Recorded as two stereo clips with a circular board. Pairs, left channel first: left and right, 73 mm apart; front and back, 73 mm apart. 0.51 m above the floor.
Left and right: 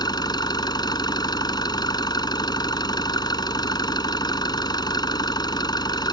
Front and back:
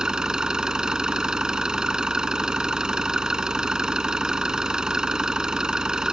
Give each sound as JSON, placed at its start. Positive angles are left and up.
{"t": 0.0, "sound": "an engine running", "azimuth_deg": 100}